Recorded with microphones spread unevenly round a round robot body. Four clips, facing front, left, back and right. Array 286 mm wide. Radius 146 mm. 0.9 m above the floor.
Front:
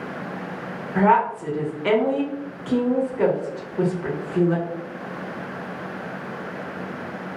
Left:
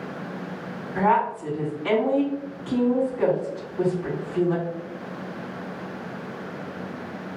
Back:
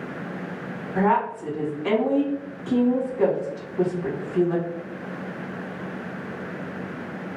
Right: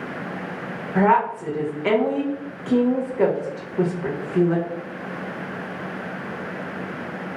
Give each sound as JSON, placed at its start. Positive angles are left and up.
{"t": 0.9, "sound": "a woman speaking", "azimuth_deg": -75, "distance_m": 1.3}